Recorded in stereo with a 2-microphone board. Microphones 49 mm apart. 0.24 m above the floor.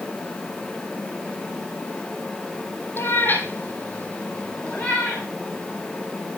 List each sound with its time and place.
3.0 s a cat meowing: 50° left (ahead or behind), 2.5 m; by 5.2 s 10° left (ahead or behind), 4 m